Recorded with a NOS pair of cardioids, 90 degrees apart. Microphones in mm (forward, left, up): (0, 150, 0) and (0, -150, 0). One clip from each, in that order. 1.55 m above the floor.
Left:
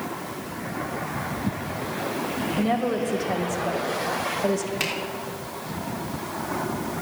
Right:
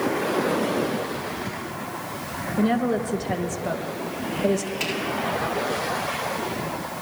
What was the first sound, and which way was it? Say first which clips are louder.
A woman speaking: right 2 dB; 5° right.